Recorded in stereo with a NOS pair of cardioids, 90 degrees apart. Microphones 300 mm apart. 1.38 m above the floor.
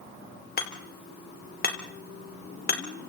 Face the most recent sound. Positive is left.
turn(degrees=30)